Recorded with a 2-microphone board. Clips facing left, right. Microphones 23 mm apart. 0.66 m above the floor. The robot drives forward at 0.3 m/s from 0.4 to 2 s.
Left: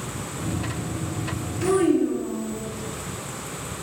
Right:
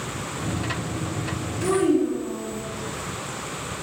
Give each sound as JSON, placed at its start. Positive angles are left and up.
{"t": 1.6, "sound": "a child speaking", "side_deg": 10, "distance_m": 0.7}